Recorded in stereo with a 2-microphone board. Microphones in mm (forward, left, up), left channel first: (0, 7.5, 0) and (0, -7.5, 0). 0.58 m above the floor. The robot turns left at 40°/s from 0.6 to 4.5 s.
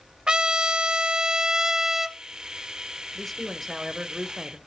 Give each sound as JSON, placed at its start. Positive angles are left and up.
{"t": 0.3, "sound": "a trumpet", "azimuth_deg": -90, "distance_m": 1.0}
{"t": 3.1, "sound": "a man speaking", "azimuth_deg": 15, "distance_m": 1.9}